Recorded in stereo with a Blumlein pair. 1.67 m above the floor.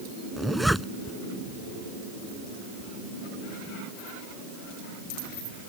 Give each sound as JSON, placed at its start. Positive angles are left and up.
{"t": 0.4, "sound": "a zipper", "azimuth_deg": 0}